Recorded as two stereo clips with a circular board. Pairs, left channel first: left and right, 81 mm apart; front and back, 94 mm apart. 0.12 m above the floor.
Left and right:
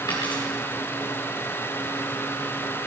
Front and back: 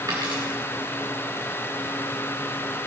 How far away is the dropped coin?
About 4 m.